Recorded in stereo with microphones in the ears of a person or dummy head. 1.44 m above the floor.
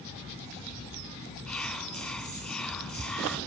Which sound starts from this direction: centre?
Whispering, at 1.5 s.